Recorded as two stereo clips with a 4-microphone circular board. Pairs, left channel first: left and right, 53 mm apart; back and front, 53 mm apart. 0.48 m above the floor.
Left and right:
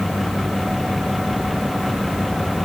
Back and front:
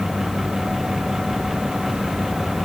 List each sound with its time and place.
Only background noise.